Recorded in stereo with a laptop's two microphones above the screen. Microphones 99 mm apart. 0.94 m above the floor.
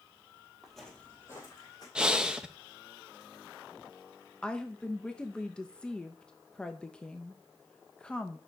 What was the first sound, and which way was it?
Footsteps, 5° right (ahead or behind).